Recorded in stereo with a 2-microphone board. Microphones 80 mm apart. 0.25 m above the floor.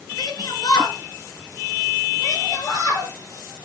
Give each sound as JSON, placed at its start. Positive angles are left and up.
{"t": 0.2, "sound": "a shout", "side_deg": 55, "distance_m": 3.0}